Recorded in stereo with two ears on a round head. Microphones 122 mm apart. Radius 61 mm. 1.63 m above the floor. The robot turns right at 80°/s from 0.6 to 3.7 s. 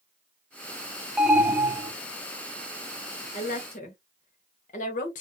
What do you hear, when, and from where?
1.2 s an alarm: 5° right (ahead or behind), 0.6 m; by 1.9 s 25° right (ahead or behind), 0.6 m
3.3 s a woman speaking: 55° left (ahead or behind), 1.1 m; by 5.2 s 60° left (ahead or behind), 1.1 m